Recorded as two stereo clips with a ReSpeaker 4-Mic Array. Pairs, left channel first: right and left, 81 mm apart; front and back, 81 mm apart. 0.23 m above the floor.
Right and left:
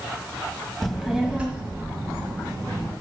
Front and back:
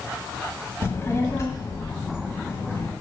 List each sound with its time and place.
0.8 s a child speaking: 5° right, 1.1 m; by 2.9 s 50° left, 2 m